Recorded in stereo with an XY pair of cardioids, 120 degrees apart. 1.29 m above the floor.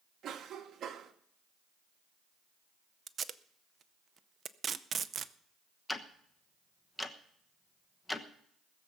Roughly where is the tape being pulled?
Ahead right.